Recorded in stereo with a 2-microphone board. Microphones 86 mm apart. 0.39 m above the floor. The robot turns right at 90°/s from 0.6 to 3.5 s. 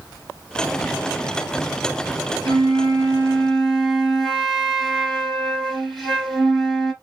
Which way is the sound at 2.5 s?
90° right.